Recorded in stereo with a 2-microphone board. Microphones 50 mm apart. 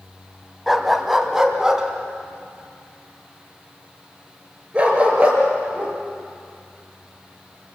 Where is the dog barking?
Centre (ahead or behind), 1.7 m; by 6.0 s 25° right (ahead or behind), 5.5 m.